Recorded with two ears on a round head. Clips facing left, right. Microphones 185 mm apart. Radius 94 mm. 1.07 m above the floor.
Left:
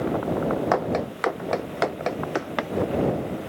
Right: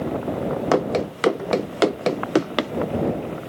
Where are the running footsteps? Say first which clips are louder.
Right 4 dB; 40° right (ahead or behind); by 2.7 s 45° right (ahead or behind).